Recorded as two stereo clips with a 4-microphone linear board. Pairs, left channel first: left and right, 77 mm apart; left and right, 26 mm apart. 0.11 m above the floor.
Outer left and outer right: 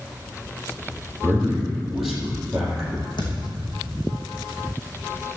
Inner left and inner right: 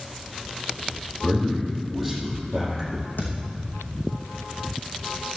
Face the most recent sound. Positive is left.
turn(degrees=65)  # may be behind; listen again after turning